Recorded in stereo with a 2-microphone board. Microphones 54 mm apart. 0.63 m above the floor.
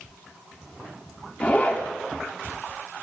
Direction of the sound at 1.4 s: 25° left (ahead or behind).